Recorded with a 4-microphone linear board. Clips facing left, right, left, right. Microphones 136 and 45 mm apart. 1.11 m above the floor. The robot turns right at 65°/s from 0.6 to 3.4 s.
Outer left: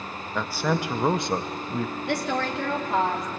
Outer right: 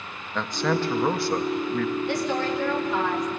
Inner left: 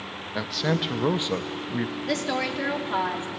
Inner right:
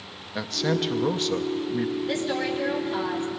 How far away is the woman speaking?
About 3 m.